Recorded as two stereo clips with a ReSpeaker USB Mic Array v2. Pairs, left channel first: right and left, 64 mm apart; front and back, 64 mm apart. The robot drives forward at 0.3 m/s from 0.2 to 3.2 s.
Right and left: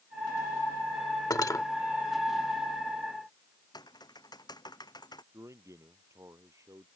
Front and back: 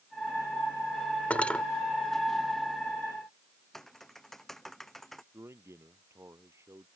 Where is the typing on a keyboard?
85° right.